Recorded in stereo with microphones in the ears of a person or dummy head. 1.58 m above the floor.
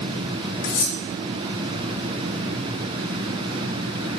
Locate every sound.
0.6 s cutlery clinking: 65° left (ahead or behind), 1.9 m